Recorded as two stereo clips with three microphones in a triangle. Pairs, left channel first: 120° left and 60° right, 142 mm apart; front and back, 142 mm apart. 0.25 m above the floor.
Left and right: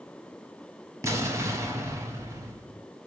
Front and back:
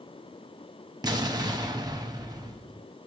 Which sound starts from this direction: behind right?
An explosion, at 1.0 s.